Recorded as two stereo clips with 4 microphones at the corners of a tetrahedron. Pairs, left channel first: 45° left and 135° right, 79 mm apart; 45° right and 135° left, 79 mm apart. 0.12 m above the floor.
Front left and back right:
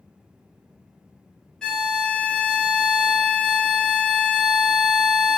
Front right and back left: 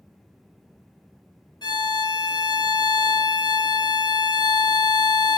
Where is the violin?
35° right, 0.8 m.